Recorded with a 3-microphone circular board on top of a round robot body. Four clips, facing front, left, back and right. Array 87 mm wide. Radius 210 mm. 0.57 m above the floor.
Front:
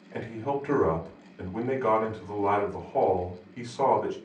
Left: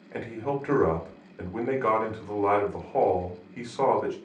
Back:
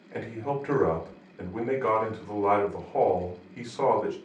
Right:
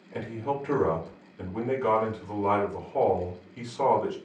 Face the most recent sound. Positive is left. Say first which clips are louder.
# left 1 dB, front 1 dB
turn(degrees=105)